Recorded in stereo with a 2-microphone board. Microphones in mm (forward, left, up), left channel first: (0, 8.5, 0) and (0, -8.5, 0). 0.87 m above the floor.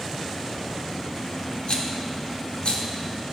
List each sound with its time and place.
1.7 s a rattle: 55° left (ahead or behind), 0.6 m